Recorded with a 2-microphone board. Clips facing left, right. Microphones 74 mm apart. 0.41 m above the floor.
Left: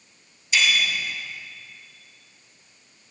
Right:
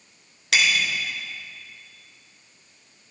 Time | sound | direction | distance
0.5 | a bicycle bell | 80° right | 4 m